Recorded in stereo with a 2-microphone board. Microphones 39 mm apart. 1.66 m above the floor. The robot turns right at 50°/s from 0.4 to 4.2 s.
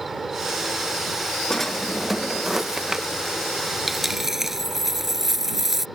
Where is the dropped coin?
5° right (ahead or behind); by 5.9 s 10° right (ahead or behind).